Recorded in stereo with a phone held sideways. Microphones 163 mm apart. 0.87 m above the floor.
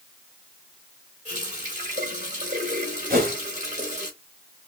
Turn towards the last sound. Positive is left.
turn(degrees=-65)  # may be behind; listen again after turning